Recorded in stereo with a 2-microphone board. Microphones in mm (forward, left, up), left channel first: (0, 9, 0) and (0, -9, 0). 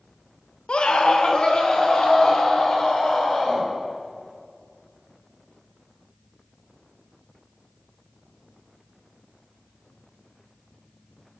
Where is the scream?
70° left (ahead or behind), 0.9 m; by 3.7 s 55° left (ahead or behind), 5 m.